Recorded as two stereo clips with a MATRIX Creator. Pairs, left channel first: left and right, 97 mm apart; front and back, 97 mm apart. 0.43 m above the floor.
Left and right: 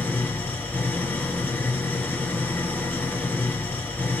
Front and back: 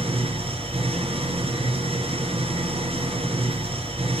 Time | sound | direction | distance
0.0 | an engine running | 160° left | 4 m